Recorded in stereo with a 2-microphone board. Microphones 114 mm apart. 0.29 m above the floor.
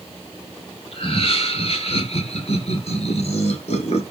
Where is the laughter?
55° left (ahead or behind), 4.5 m; by 4.0 s 70° left (ahead or behind), 4 m.